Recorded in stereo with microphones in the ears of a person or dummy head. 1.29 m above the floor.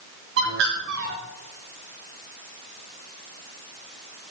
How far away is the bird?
About 3.5 m.